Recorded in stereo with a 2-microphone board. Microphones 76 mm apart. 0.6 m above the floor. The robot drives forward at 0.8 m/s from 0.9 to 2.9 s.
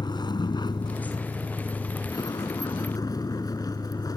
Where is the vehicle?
80° left; by 4.2 s 60° left (ahead or behind).